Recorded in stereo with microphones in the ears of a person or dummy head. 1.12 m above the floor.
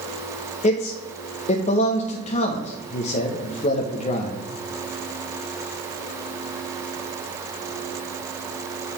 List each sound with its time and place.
0.6 s a man speaking: 40° left (ahead or behind), 0.8 m